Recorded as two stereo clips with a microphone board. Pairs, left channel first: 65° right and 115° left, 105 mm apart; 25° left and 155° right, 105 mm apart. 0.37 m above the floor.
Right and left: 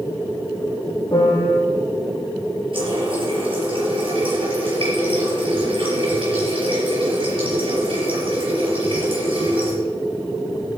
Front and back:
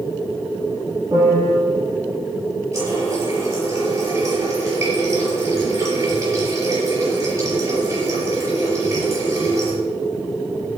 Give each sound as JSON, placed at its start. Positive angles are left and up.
{"t": 1.1, "sound": "a piano", "azimuth_deg": -110, "distance_m": 5.0}
{"t": 2.7, "sound": "a running tap", "azimuth_deg": 140, "distance_m": 6.0}